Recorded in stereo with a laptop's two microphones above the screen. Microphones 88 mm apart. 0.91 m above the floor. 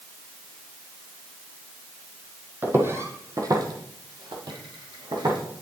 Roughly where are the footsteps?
Right.